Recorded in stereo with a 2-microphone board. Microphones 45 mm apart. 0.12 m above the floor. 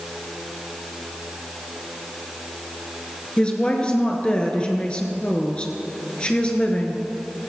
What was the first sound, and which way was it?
A woman speaking, 25° left (ahead or behind).